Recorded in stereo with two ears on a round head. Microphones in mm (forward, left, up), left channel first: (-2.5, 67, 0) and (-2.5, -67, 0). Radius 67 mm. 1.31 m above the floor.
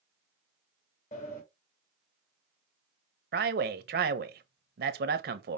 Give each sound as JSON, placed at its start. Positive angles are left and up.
{"t": 1.1, "sound": "a sliding door", "side_deg": 50, "distance_m": 1.9}
{"t": 3.3, "sound": "a man speaking", "side_deg": -70, "distance_m": 0.8}